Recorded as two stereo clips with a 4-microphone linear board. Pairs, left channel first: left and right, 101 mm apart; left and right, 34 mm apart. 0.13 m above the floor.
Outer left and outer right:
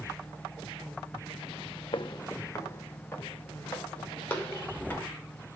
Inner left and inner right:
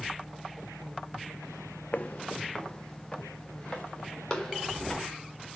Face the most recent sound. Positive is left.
turn(degrees=15)  # may be behind; listen again after turning